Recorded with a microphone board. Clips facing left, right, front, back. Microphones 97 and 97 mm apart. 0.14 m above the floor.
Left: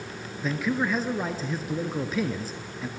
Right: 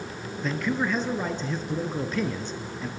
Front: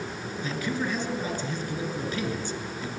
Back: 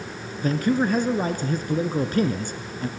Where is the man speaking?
175° left, 1.9 m.